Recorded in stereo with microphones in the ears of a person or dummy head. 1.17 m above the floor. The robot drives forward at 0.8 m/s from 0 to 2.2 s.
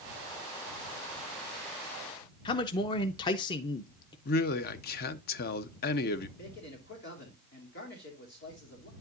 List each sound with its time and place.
2.5 s a man speaking: 30° left (ahead or behind), 0.6 m
4.2 s a man speaking: 55° left (ahead or behind), 0.8 m
6.4 s a man speaking: 50° left (ahead or behind), 3 m